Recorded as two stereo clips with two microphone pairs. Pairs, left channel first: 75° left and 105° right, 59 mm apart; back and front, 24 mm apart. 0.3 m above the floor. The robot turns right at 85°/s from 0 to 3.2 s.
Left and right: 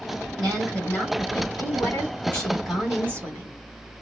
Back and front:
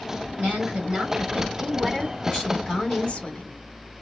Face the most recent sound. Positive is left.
turn(degrees=-150)